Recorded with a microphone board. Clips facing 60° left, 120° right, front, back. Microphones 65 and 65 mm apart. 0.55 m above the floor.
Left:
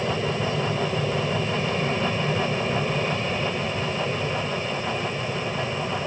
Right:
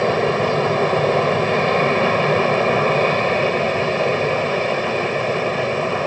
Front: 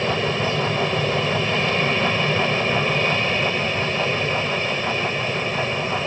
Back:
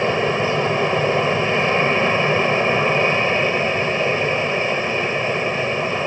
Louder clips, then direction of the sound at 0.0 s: Right 8 dB, back 3 dB; 120° right.